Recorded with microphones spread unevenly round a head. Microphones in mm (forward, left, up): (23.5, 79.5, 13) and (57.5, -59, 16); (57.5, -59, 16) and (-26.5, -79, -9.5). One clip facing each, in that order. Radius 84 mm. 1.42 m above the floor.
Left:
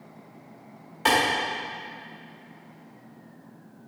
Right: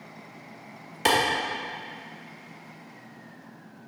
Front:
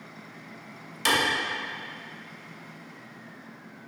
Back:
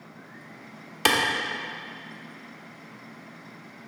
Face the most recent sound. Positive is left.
turn(degrees=-130)